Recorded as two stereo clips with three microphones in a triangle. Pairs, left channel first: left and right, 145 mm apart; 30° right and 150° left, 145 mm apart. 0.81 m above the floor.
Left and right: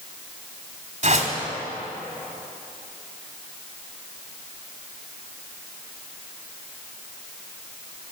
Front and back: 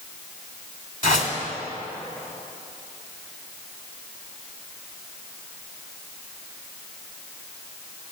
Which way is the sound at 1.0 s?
55° right.